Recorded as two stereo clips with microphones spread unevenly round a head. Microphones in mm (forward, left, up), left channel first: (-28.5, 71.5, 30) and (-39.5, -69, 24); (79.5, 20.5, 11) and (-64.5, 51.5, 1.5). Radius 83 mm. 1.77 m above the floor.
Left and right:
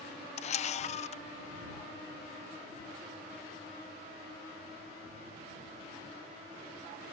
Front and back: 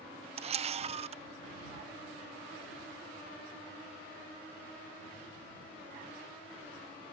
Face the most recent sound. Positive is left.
turn(degrees=120)